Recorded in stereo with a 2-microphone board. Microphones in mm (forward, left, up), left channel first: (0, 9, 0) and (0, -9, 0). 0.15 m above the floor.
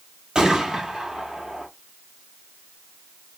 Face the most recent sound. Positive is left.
turn(degrees=-50)  # may be behind; listen again after turning